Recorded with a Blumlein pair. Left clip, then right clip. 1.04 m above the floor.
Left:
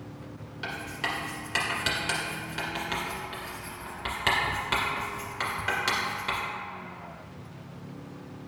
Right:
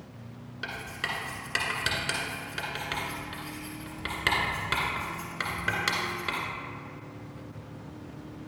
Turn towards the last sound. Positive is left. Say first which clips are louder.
# left 1 dB
turn(degrees=-5)